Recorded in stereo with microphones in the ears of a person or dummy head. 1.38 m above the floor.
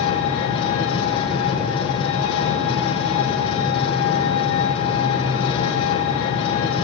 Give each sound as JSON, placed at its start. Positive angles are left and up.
{"t": 0.0, "sound": "an engine running", "side_deg": 30, "distance_m": 4.5}